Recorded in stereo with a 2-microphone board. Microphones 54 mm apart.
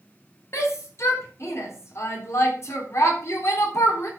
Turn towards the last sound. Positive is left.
turn(degrees=60)  # may be behind; listen again after turning